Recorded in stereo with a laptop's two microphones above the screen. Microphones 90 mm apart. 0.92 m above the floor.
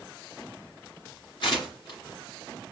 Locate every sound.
1.4 s tearing paper: 60° left (ahead or behind), 1.5 m